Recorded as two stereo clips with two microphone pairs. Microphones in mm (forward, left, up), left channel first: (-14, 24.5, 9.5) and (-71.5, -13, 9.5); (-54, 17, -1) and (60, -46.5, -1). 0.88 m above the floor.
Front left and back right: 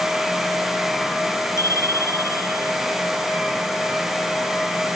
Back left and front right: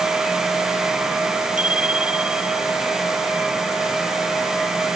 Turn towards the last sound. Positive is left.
turn(degrees=-5)